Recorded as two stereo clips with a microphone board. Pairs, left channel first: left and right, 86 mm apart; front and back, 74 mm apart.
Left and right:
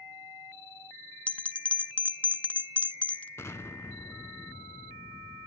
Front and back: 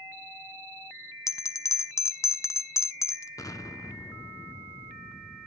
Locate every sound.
1.3 s a bell: 20° left, 0.7 m
3.4 s an explosion: 35° left, 0.9 m